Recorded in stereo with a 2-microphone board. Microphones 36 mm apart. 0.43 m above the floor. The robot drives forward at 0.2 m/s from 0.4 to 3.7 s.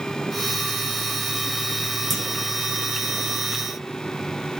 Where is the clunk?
Centre (ahead or behind), 0.8 m.